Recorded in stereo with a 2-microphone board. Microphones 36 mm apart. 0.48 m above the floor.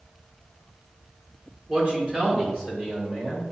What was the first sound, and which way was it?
A man speaking, 30° right (ahead or behind).